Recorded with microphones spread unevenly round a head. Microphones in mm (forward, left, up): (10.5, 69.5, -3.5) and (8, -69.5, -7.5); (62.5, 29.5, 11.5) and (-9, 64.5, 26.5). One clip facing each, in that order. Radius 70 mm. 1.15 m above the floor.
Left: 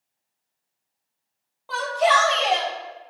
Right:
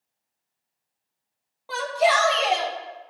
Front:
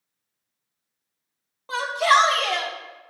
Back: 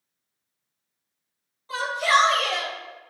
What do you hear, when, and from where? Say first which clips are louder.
1.7 s a shout: left 1 dB, front 3 dB; 10° right, 2.5 m